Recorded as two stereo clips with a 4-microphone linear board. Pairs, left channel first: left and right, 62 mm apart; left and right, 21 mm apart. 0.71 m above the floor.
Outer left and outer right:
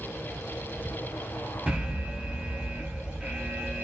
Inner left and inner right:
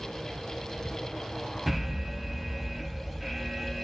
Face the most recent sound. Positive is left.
turn(degrees=-25)  # may be behind; listen again after turning